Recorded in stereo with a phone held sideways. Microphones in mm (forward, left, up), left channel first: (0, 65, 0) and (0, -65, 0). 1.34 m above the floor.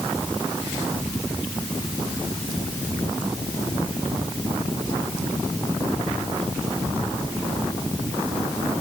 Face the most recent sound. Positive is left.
No sound to turn to.